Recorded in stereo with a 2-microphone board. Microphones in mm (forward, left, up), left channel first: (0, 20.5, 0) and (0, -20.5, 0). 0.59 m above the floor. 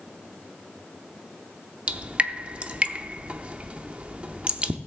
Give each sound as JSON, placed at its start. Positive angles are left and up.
{"t": 1.9, "sound": "dripping", "side_deg": -30, "distance_m": 0.7}